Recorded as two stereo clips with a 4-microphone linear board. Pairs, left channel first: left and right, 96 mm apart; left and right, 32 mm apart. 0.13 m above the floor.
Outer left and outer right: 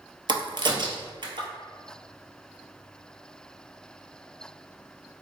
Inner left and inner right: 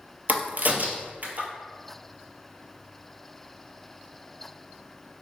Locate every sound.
0.3 s a crack: 55° right (ahead or behind), 0.5 m